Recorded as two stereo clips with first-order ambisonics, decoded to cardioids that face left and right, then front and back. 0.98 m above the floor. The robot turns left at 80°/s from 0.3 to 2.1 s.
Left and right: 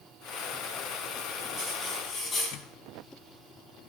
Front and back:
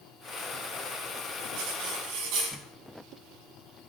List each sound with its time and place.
1.6 s cutlery clinking: 155° right, 5 m; by 2.6 s 160° left, 5 m